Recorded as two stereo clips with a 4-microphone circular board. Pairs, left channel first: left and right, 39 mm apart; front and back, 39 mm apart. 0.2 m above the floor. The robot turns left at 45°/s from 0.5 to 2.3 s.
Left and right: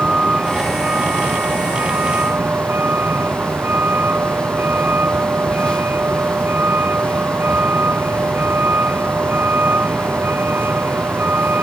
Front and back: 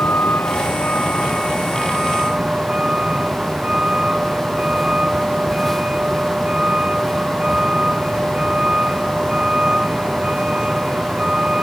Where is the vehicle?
35° right; by 11.6 s 115° right.